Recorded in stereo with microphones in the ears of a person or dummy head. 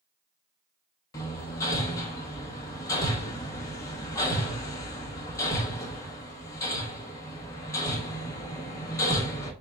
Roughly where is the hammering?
Centre.